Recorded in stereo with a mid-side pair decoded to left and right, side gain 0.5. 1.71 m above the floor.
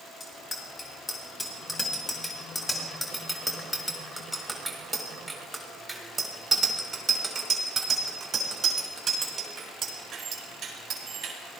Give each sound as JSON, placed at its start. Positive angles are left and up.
{"t": 0.2, "sound": "a bicycle bell", "azimuth_deg": 30, "distance_m": 5.0}